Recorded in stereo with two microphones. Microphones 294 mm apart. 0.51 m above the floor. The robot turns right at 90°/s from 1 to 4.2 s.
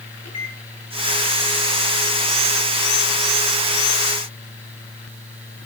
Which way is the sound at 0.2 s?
60° left (ahead or behind).